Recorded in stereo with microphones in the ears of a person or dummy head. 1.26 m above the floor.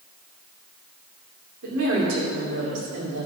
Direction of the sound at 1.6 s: 75° right (ahead or behind).